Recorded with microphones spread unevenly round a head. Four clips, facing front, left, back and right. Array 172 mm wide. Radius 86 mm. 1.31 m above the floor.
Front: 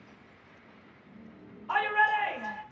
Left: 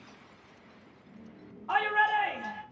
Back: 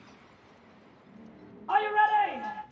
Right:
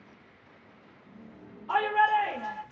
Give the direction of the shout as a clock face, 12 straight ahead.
7 o'clock.